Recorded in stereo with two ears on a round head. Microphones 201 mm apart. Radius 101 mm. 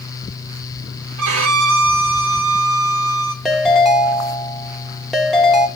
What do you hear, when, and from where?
1.2 s a violin: 70° right (ahead or behind), 2.5 m
3.5 s a ringtone: centre (ahead or behind), 1.7 m